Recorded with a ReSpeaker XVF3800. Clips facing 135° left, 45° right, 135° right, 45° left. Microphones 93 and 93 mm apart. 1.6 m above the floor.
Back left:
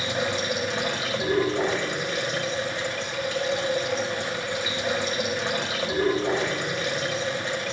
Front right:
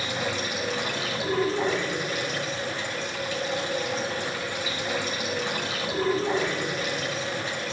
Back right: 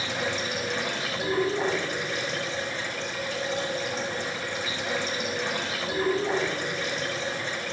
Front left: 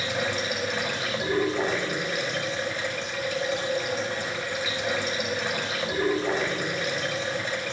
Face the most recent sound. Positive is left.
turn(degrees=125)